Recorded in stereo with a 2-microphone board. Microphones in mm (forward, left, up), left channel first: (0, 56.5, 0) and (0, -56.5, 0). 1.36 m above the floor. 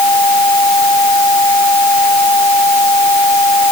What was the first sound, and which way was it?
Only background noise.